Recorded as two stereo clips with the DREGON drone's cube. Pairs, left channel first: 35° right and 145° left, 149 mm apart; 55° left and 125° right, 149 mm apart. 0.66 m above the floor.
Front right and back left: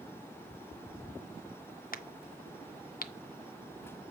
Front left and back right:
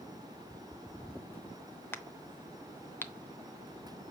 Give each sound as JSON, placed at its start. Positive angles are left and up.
{"t": 1.9, "sound": "a crack", "azimuth_deg": -20, "distance_m": 0.7}